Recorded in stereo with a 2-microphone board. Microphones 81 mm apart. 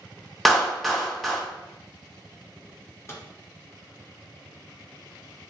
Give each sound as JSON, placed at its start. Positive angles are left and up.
{"t": 0.5, "sound": "a clap", "side_deg": 0, "distance_m": 0.7}
{"t": 3.1, "sound": "a microwave", "side_deg": 35, "distance_m": 0.7}